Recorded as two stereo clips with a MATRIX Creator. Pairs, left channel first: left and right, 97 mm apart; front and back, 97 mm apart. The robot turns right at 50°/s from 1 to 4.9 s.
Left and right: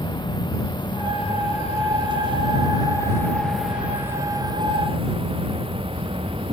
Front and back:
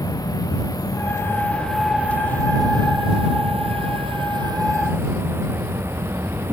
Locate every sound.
0.0 s an insect: 50° left; by 6.5 s 115° right